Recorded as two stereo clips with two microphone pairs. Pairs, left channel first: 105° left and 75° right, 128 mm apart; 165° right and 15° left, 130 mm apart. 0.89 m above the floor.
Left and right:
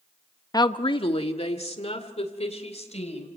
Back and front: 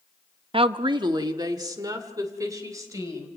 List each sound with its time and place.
0.5 s a woman speaking: 50° left, 0.7 m; by 3.3 s 75° left, 4 m